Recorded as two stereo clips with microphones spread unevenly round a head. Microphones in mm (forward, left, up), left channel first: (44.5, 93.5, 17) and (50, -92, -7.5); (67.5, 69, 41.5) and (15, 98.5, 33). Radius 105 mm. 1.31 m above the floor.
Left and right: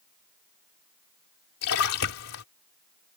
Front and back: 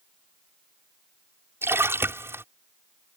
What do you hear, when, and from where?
1.6 s a splash: 100° left